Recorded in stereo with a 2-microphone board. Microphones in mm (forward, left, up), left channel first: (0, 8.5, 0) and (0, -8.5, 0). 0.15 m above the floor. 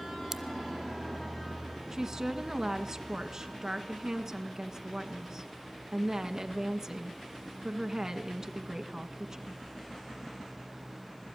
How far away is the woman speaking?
About 1.5 m.